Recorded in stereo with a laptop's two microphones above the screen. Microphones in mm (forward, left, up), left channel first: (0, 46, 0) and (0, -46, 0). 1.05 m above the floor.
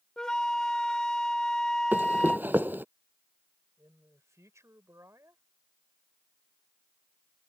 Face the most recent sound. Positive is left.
turn(degrees=-35)  # may be behind; listen again after turning